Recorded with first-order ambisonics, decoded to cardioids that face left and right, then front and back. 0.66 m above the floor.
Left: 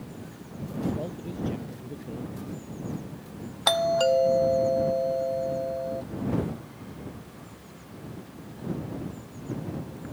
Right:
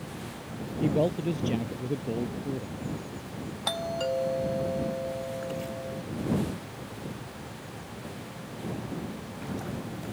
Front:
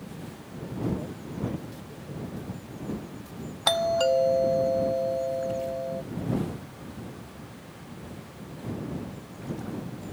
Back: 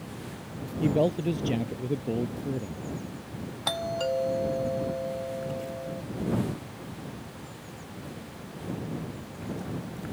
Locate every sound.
0.8 s a man speaking: 145° right
3.7 s a doorbell: 50° left